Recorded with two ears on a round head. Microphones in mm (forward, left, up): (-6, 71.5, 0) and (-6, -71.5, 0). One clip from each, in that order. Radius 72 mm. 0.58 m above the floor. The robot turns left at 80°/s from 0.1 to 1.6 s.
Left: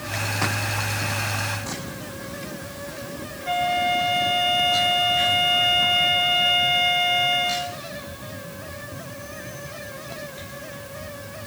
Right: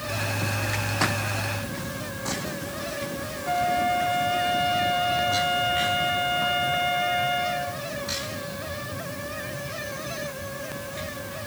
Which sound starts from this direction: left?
A flute, at 3.5 s.